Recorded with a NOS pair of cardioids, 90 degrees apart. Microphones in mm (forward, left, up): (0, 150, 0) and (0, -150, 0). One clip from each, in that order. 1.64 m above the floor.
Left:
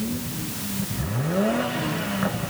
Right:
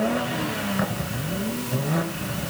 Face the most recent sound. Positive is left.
No sound to turn to.